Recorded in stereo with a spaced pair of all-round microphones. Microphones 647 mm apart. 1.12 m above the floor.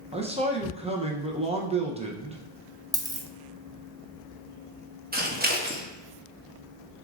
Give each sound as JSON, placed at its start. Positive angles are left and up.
{"t": 0.1, "sound": "a man speaking", "side_deg": -10, "distance_m": 0.6}
{"t": 2.9, "sound": "a dropped coin", "side_deg": -5, "distance_m": 0.5}
{"t": 5.1, "sound": "scissors", "side_deg": -15, "distance_m": 0.7}